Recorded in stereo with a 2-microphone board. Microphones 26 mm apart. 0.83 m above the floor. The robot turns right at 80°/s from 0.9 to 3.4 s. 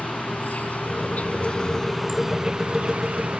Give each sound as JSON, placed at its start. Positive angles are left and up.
{"t": 0.0, "sound": "an insect", "azimuth_deg": 85}